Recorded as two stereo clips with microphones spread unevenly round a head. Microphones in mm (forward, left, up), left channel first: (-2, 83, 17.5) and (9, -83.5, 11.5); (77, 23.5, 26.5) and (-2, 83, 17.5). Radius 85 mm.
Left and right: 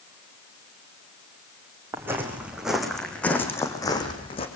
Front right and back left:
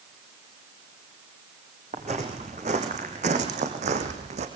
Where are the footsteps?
165° right, 4.5 m; by 4.5 s 150° left, 4 m.